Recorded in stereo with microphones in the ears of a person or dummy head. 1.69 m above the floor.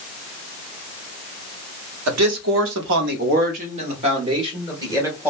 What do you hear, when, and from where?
2.1 s a man speaking: 80° right, 0.9 m; by 5.3 s 15° right (ahead or behind), 1.7 m